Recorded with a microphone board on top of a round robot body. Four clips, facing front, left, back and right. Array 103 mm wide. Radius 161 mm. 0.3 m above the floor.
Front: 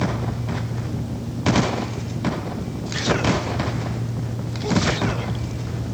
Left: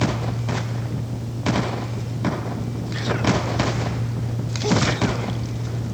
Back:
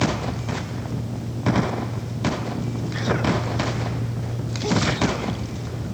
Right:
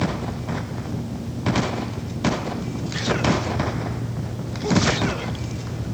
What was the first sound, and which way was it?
Only background noise.